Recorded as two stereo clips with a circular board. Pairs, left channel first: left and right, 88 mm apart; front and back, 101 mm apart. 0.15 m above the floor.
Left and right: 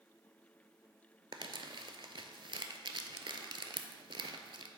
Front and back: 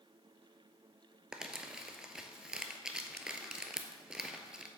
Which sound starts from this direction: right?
Crumpling, at 1.3 s.